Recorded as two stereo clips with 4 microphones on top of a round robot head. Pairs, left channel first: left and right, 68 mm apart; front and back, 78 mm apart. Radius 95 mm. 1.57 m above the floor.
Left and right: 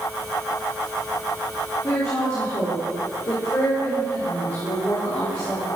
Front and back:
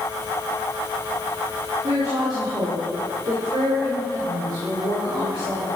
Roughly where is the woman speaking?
Behind left.